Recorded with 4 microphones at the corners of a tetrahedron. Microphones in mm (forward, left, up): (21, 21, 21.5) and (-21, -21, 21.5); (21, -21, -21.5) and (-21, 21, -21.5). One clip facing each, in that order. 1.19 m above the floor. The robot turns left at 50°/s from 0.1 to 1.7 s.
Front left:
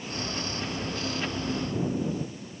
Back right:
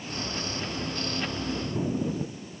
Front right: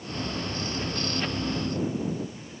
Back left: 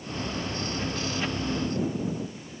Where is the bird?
No bird in this recording.